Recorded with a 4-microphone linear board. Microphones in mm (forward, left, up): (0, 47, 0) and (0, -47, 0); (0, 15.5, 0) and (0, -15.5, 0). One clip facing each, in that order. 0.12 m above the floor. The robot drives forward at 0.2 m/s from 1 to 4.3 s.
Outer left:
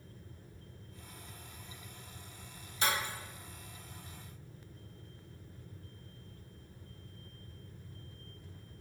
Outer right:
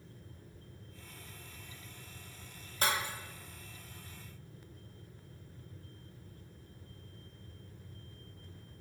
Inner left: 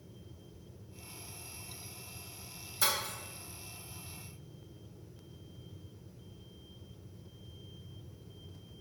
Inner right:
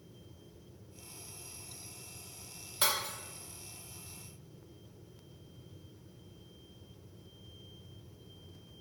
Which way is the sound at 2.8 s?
45° right (ahead or behind).